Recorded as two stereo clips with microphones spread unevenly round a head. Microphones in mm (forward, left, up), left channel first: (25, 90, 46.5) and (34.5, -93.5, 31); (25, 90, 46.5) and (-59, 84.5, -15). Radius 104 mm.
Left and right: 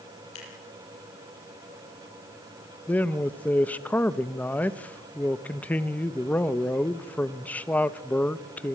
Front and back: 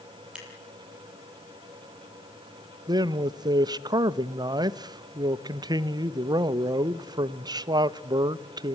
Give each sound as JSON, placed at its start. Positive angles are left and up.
{"t": 0.3, "sound": "scissors", "azimuth_deg": 100, "distance_m": 8.5}
{"t": 2.9, "sound": "a man speaking", "azimuth_deg": 175, "distance_m": 0.6}